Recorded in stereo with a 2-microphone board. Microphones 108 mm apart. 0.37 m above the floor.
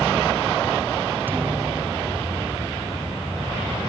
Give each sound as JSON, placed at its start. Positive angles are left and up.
{"t": 1.3, "sound": "a thud", "side_deg": -20}